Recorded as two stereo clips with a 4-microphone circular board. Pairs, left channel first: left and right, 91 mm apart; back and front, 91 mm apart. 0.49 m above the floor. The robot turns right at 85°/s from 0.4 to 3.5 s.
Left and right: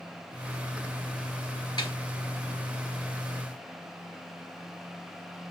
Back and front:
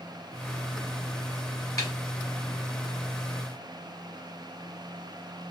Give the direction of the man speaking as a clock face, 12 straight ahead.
I don't hear a man speaking.